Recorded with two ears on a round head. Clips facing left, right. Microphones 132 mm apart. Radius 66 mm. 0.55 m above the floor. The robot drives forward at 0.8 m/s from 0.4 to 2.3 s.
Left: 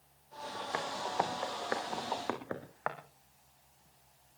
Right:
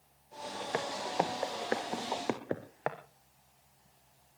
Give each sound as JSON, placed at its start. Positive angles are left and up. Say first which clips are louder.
{"t": 0.7, "sound": "footsteps", "louder": "right 2 dB", "side_deg": -35, "distance_m": 2.0}